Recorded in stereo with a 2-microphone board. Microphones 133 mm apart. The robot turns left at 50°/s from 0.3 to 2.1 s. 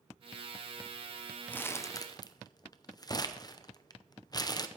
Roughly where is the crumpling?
Centre.